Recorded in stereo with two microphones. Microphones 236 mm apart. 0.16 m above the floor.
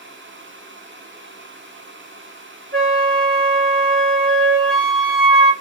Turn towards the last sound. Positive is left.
turn(degrees=-55)  # may be behind; listen again after turning